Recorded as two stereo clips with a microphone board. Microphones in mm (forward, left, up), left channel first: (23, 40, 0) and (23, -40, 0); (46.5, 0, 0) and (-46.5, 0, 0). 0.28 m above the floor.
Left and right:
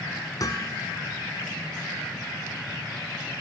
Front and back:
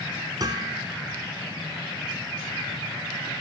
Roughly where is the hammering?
Behind left.